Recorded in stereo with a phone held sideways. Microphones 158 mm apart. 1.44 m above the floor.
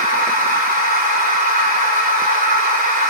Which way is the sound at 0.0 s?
70° right (ahead or behind).